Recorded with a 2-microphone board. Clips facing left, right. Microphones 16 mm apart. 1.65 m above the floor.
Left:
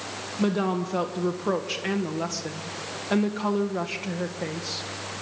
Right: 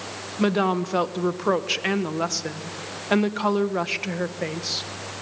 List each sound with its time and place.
0.4 s a woman speaking: 25° right (ahead or behind), 1.4 m